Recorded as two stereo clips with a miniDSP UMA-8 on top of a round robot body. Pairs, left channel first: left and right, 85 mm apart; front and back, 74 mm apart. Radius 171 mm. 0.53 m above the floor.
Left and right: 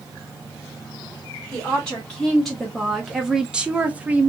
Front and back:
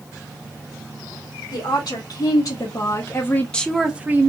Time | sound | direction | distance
1.5 | a woman speaking | 5° left | 1.6 m